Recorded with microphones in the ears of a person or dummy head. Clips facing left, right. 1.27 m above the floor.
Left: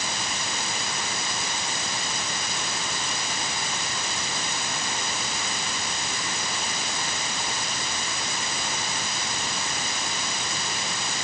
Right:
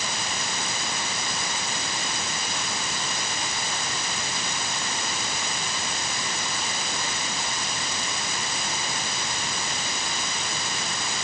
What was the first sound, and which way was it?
Only background noise.